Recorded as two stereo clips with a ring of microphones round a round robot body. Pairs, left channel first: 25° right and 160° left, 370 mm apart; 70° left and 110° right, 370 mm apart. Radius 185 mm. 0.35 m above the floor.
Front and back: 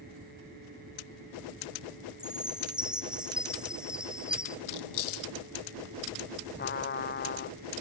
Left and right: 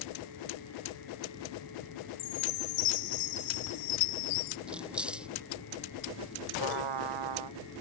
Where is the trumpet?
90° right.